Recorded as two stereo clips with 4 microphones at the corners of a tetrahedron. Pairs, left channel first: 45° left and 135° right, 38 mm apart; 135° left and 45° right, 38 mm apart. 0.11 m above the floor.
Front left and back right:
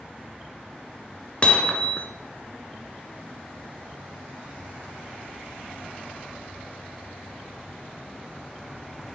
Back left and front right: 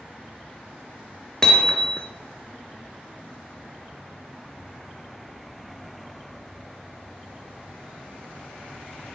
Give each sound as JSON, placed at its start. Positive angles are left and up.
{"t": 1.4, "sound": "hammering", "azimuth_deg": 80, "distance_m": 1.1}